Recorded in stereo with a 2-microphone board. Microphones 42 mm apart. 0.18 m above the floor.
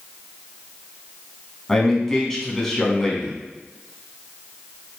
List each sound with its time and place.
1.7 s a man speaking: 10° left (ahead or behind), 1.3 m